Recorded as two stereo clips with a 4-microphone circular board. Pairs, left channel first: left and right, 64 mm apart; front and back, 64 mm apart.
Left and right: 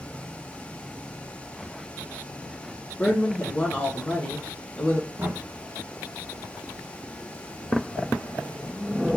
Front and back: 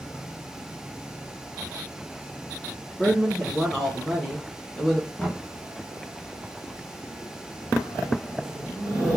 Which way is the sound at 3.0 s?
75° left.